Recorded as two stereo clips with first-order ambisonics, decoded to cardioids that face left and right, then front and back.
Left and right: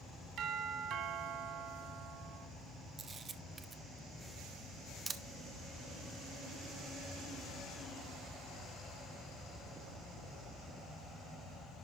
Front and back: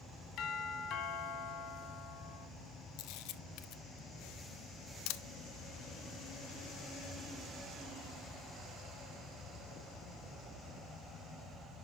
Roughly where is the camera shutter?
Ahead.